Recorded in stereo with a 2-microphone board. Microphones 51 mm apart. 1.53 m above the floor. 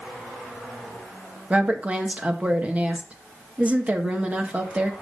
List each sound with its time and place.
1.5 s a woman speaking: 30° right (ahead or behind), 1.7 m